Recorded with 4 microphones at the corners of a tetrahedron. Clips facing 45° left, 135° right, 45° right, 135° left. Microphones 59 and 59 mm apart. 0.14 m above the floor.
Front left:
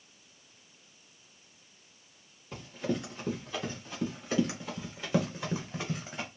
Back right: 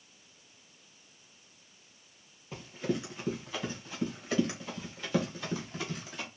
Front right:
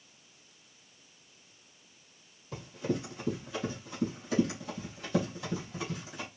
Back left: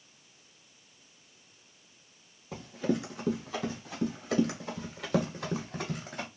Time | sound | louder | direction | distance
2.5 | running footsteps | even, back left 3 dB | 140° left | 3.5 m